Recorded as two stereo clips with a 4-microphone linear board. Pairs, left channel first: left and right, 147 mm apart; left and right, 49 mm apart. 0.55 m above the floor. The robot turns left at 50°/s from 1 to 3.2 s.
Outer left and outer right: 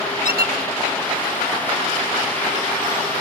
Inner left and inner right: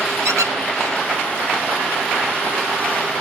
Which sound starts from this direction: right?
A squeak, at 0.2 s.